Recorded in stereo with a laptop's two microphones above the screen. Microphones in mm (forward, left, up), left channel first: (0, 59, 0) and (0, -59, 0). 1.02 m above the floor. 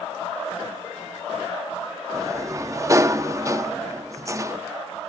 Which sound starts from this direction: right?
A sliding door, at 2.1 s.